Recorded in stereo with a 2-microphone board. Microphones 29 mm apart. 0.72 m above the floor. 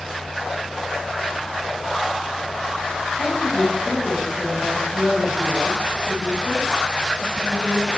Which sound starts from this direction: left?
A woman speaking, at 3.2 s.